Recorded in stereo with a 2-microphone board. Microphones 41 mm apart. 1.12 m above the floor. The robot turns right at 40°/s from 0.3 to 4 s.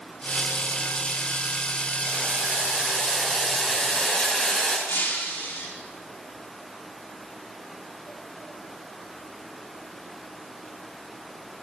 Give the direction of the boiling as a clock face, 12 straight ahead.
2 o'clock.